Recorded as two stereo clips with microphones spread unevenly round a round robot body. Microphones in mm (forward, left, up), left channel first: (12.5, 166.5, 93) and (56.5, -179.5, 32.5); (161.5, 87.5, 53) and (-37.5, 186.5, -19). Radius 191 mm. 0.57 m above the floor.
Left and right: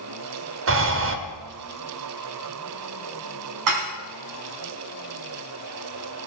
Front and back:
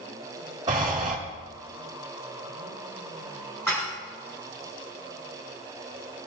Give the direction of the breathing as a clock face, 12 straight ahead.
4 o'clock.